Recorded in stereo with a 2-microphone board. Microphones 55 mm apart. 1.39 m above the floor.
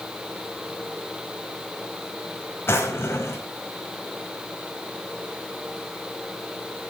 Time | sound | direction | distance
2.7 | a drawer | 45° left (ahead or behind) | 4 m